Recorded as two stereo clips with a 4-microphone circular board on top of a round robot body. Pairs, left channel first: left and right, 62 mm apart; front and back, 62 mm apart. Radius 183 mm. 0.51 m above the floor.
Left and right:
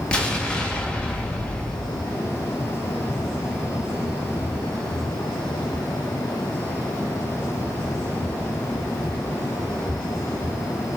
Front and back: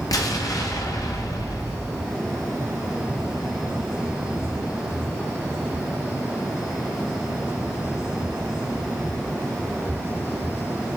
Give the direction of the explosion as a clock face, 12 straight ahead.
11 o'clock.